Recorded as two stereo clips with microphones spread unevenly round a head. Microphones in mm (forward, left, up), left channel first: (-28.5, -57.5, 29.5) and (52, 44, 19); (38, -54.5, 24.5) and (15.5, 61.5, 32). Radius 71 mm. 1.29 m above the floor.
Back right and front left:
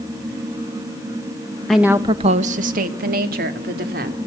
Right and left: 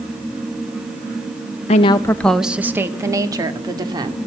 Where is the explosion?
No explosion in this recording.